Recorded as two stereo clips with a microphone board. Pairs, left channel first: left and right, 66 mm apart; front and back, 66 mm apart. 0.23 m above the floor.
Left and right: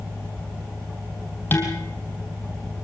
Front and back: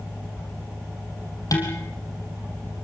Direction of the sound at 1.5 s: 30° left.